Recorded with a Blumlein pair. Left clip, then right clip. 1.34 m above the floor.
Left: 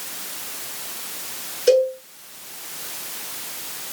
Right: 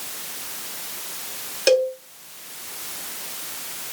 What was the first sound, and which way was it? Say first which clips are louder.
A cowbell: left 2 dB; 35° right.